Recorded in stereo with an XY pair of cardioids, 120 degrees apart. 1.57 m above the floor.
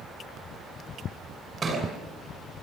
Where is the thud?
25° right, 8.5 m.